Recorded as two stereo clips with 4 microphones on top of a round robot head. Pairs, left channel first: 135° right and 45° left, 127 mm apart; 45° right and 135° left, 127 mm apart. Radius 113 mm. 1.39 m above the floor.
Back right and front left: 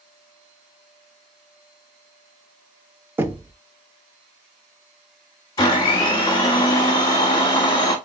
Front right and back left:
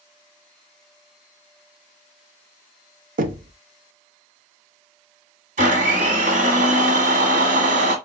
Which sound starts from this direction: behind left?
Knocking, at 3.2 s.